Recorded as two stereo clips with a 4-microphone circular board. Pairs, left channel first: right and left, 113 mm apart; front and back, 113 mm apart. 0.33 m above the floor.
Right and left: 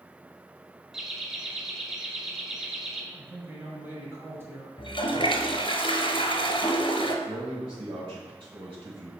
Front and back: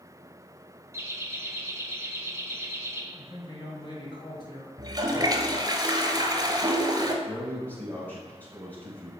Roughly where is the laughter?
Behind.